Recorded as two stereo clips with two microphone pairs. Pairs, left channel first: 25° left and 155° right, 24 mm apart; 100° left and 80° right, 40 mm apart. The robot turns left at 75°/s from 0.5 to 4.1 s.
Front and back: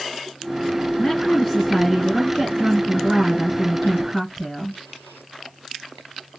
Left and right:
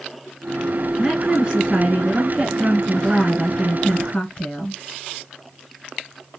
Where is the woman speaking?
10° right, 1.7 m; by 4.8 s 115° left, 1.7 m.